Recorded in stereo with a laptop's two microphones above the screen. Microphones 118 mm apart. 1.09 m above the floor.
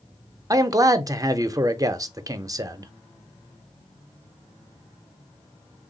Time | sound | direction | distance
0.5 | a man speaking | 30° right (ahead or behind) | 0.5 m